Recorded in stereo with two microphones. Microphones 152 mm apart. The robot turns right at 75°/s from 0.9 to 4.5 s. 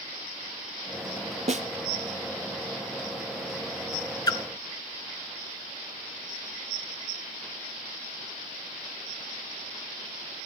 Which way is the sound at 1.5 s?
45° right (ahead or behind).